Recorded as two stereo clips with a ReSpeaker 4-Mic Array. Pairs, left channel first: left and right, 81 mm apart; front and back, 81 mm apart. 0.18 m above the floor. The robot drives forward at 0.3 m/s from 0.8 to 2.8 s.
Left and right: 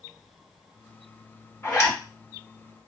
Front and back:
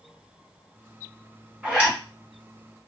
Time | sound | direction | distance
1.6 | a zipper | 110° left | 1.9 m